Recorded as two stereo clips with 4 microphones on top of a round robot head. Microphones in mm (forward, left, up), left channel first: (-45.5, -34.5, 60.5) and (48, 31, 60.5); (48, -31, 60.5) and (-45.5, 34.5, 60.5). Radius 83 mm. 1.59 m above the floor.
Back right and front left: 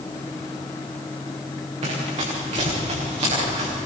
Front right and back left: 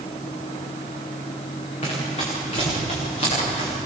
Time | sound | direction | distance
1.8 | running footsteps | 5° left | 9.5 m